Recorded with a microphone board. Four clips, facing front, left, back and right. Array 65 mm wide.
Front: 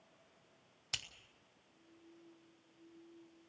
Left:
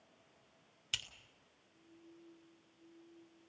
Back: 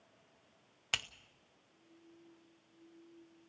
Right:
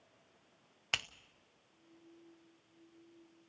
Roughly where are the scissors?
Behind right.